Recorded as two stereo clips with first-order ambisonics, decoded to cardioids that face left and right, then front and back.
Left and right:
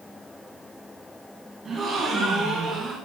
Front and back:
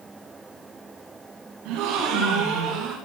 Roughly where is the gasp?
Behind.